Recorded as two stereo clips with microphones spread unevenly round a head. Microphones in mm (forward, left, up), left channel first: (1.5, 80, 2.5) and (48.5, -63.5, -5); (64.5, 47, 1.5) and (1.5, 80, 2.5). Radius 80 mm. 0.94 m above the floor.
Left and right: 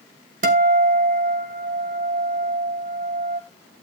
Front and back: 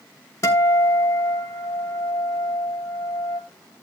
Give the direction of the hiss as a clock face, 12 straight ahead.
I don't hear a hiss.